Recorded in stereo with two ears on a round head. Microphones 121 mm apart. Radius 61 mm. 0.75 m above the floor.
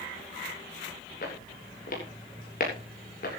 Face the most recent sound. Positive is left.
turn(degrees=65)  # may be behind; listen again after turning